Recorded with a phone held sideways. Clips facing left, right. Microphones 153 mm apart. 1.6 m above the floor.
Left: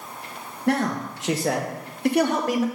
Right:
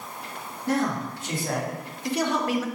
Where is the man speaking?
70° left (ahead or behind), 1.9 m; by 2.6 s 35° left (ahead or behind), 1.3 m.